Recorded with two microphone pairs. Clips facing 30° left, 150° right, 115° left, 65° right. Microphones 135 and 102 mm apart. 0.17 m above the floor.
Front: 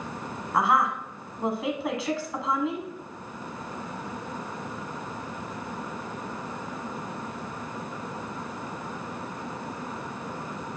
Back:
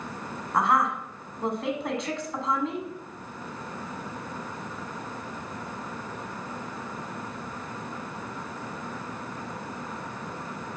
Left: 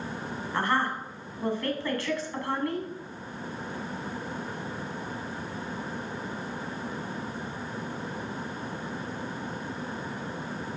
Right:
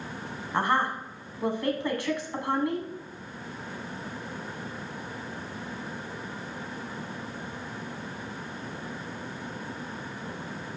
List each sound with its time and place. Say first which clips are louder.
0.5 s a woman speaking: even, right 2 dB; 50° right, 1.3 m